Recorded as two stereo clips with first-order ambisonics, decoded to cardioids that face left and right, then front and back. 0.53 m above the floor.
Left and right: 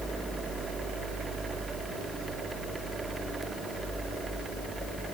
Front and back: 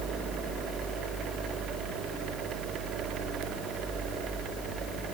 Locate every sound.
Only background noise.